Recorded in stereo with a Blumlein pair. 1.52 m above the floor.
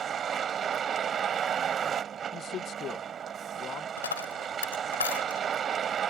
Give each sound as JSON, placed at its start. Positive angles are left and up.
{"t": 0.0, "sound": "a vehicle", "azimuth_deg": -20}
{"t": 2.3, "sound": "a man speaking", "azimuth_deg": 30}
{"t": 4.0, "sound": "a dropped coin", "azimuth_deg": 70}